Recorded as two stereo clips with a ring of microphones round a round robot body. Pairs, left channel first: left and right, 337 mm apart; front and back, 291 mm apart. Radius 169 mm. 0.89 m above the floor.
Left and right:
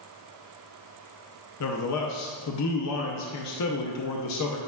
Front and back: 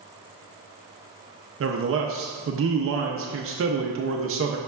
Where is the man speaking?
135° left, 0.7 m.